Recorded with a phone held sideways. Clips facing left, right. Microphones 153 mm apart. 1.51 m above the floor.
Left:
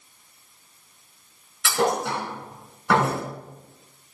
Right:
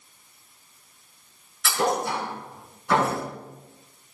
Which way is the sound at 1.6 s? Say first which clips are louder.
Left 1 dB; 75° left (ahead or behind).